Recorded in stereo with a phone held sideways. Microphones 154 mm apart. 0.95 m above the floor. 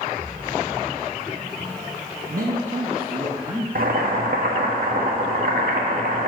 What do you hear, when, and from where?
2.3 s a man speaking: 70° right (ahead or behind), 1.0 m; by 3.6 s 10° right (ahead or behind), 1.1 m
3.8 s boiling: 70° right (ahead or behind), 1.5 m